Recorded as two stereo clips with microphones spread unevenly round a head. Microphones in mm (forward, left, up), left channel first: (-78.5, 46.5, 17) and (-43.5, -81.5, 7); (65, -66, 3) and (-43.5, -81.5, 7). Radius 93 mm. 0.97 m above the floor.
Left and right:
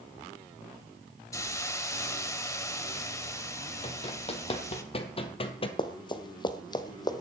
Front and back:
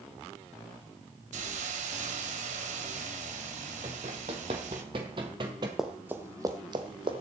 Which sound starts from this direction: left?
Running footsteps, at 5.8 s.